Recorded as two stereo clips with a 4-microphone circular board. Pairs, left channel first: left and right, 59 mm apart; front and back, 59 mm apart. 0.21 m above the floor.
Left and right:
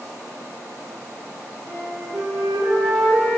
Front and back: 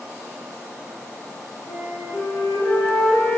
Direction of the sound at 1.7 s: 10° right.